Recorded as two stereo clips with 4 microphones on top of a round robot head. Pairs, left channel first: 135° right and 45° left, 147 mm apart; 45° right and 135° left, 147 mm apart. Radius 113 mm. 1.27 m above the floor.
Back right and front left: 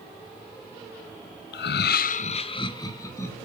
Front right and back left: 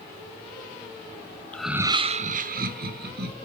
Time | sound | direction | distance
1.5 | laughter | 125° right | 0.6 m